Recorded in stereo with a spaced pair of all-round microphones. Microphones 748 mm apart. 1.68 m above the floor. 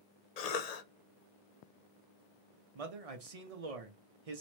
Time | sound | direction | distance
0.4 | a cough | 60° left (ahead or behind) | 0.7 m
2.8 | a man speaking | 50° right (ahead or behind) | 1.0 m